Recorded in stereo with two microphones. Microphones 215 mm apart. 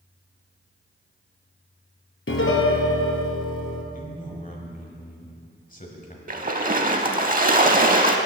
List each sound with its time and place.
2.3 s a piano: 75° left (ahead or behind), 0.9 m
3.9 s a man speaking: 40° left (ahead or behind), 1.1 m
6.3 s a splash: 40° right (ahead or behind), 0.6 m